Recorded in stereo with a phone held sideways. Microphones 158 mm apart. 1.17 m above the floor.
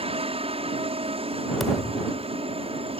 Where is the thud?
Centre (ahead or behind).